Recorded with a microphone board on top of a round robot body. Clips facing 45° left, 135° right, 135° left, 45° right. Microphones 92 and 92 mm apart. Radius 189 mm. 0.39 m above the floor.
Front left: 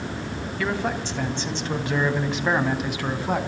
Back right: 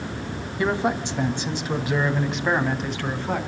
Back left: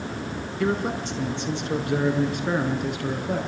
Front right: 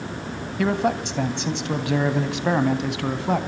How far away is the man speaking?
About 3.5 m.